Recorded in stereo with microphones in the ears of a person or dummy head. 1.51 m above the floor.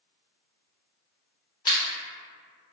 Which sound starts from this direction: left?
A camera shutter, at 1.6 s.